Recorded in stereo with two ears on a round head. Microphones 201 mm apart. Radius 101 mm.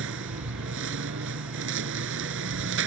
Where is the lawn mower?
60° right (ahead or behind).